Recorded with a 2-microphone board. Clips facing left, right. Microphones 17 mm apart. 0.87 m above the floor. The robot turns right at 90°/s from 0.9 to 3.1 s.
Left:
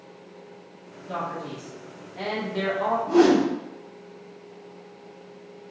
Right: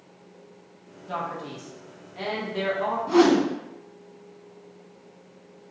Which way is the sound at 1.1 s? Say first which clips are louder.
Even; 25° right (ahead or behind).